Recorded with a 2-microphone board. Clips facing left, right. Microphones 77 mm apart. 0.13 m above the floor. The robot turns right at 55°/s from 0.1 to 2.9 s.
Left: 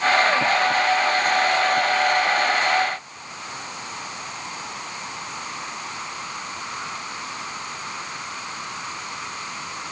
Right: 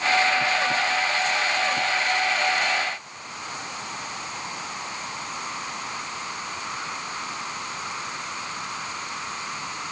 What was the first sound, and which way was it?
Only background noise.